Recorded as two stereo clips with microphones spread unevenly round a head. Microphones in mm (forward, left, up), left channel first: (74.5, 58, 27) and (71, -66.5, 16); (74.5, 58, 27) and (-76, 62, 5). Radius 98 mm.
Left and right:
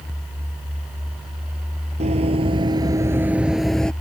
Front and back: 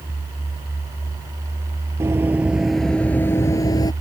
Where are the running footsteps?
100° right; by 3.9 s 20° left.